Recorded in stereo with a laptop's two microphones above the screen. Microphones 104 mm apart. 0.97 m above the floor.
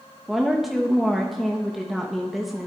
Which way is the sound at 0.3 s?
Centre (ahead or behind).